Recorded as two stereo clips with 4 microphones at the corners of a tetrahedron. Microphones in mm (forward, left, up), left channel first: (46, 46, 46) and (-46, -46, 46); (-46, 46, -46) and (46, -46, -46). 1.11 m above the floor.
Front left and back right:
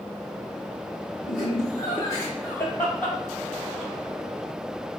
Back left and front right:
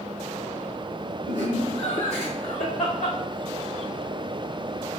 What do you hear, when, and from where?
1.3 s laughter: 105° left, 2.5 m; by 3.9 s 125° left, 3 m